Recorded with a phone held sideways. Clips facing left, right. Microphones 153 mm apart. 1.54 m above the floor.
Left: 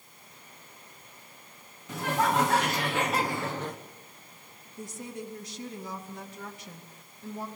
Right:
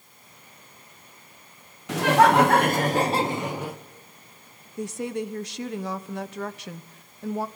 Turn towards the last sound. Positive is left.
turn(degrees=-75)  # may be behind; listen again after turning